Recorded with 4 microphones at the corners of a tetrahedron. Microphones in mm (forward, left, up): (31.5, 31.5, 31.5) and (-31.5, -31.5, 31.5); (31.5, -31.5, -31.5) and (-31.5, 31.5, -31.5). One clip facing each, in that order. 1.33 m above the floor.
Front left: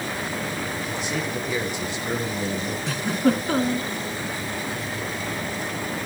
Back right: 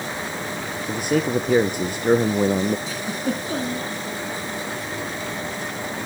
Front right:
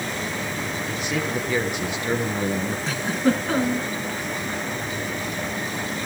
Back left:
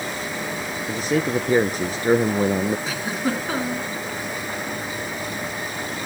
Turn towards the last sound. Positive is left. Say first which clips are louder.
# front left 4 dB, front right 3 dB
turn(degrees=50)